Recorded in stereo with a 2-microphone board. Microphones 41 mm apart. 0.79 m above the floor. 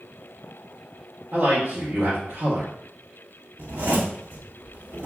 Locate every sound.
1.3 s a man speaking: 55° right (ahead or behind), 1.3 m
3.6 s a zipper: 65° right (ahead or behind), 1.5 m